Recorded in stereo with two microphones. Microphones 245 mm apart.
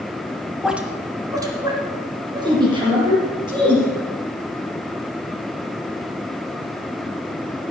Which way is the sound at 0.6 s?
Centre (ahead or behind).